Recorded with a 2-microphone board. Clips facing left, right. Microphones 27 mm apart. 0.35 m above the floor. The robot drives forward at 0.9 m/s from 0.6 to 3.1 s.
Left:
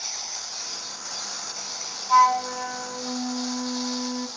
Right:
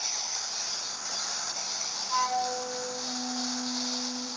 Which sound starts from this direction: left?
A flute, at 2.1 s.